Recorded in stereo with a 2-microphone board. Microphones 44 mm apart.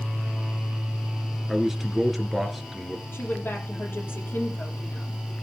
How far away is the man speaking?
About 1.9 m.